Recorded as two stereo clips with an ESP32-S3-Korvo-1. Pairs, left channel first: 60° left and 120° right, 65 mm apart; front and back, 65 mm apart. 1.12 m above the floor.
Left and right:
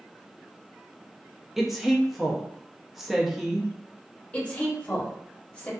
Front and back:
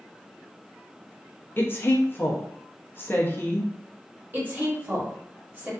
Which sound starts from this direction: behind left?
A woman speaking, at 4.3 s.